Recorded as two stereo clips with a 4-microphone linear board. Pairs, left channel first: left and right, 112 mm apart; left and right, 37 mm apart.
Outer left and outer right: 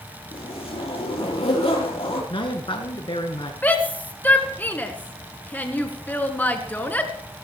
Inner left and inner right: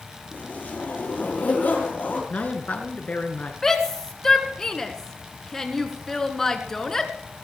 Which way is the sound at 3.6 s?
15° left (ahead or behind).